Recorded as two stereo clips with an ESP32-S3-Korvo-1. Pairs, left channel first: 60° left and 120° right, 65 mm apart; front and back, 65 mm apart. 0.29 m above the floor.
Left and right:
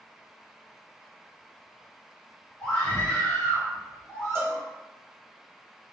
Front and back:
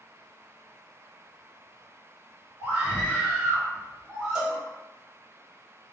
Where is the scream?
125° left, 1.9 m; by 4.7 s 100° left, 2.5 m.